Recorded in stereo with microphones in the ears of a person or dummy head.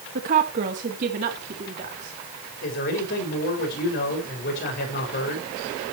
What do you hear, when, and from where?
0.1 s a woman speaking: 45° right (ahead or behind), 1.6 m; by 2.2 s 40° right (ahead or behind), 3 m
2.6 s a man speaking: 45° left (ahead or behind), 6 m